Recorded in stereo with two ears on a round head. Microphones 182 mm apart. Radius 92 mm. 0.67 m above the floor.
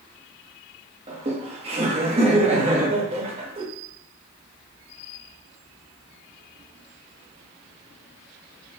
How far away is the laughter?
About 1.1 m.